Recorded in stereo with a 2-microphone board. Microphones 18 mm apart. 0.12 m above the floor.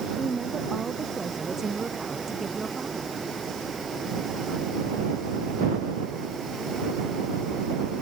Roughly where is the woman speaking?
Centre.